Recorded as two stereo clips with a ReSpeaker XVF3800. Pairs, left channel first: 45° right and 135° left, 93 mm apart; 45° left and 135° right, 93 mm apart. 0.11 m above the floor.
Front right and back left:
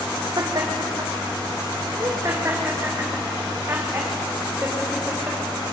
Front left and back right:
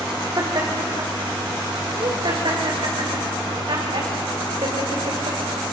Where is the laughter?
175° left, 4.5 m; by 5.4 s 155° right, 7.5 m.